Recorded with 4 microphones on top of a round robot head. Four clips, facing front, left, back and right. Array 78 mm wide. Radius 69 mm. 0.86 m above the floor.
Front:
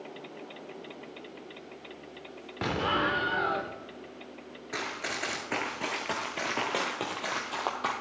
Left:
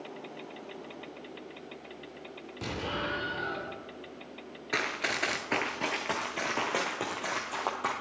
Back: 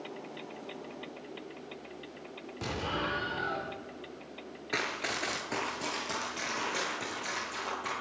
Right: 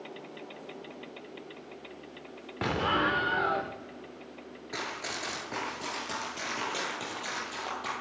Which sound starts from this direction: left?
Running footsteps, at 4.7 s.